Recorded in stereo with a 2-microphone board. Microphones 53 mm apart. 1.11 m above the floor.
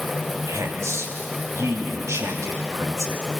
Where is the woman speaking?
65° right (ahead or behind), 2.5 m.